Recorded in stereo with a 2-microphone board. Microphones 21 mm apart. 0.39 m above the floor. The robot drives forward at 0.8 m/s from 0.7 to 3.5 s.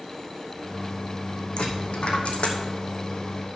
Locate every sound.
1.6 s a dropped coin: 55° left (ahead or behind), 2 m; by 2.6 s 75° left (ahead or behind), 1.8 m